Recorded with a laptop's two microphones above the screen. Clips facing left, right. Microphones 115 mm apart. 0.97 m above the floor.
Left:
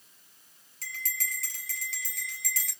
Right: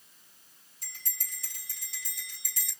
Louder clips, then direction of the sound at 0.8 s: Left 11 dB; 85° left.